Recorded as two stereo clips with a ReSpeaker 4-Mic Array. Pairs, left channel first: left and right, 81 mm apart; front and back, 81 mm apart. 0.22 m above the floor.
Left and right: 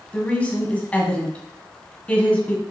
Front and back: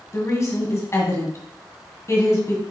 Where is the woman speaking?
25° left, 1.9 m.